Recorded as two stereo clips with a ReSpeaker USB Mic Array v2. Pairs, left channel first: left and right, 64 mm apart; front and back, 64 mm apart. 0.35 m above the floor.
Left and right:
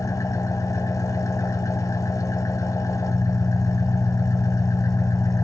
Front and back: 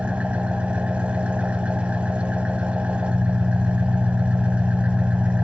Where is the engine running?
110° left, 1.1 m.